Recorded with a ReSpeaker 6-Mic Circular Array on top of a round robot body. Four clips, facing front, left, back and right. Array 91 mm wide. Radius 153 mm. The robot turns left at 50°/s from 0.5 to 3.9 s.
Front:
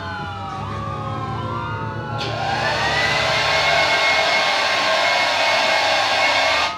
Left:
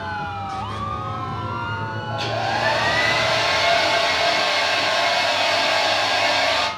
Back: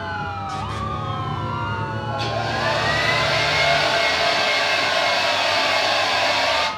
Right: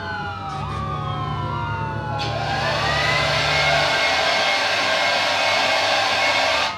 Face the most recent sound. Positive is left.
turn(degrees=-15)